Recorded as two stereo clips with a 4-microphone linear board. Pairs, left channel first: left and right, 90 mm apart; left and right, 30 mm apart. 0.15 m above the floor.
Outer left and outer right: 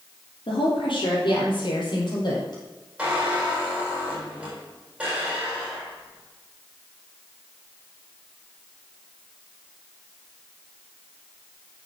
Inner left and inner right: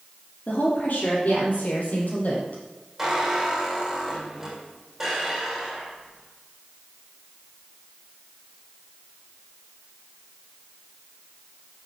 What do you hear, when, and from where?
0.5 s a woman speaking: 65° left (ahead or behind), 4.5 m; by 2.6 s 50° left (ahead or behind), 4.5 m
3.0 s a squeak: 10° right (ahead or behind), 3.5 m